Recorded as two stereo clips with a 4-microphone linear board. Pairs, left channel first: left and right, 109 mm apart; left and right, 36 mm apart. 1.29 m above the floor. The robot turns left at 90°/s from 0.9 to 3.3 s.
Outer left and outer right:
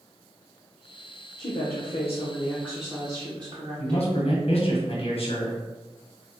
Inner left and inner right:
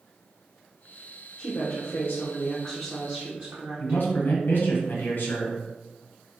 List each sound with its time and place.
1.4 s a woman speaking: 130° left, 0.7 m; by 4.1 s 45° right, 0.7 m
3.8 s a man speaking: 65° left (ahead or behind), 0.8 m